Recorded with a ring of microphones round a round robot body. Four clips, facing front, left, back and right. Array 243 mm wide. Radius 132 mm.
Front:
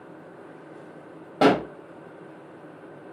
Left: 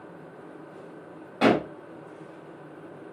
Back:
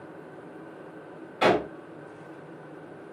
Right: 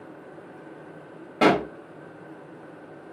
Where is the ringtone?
No ringtone in this recording.